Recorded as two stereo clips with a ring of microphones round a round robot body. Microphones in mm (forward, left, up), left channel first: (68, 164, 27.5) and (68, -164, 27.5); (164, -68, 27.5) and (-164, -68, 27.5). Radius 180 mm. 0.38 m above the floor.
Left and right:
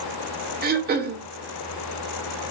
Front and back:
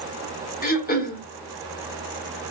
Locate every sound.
0.6 s throat clearing: 45° right, 0.8 m